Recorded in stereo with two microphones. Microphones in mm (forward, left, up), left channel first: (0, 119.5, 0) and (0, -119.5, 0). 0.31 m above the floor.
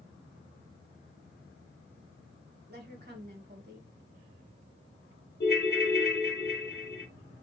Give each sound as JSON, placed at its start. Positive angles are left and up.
{"t": 2.7, "sound": "a woman speaking", "side_deg": -40, "distance_m": 1.5}
{"t": 5.4, "sound": "a ringtone", "side_deg": 45, "distance_m": 0.7}